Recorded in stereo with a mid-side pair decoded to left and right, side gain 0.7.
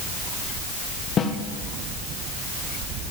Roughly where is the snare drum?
Ahead left.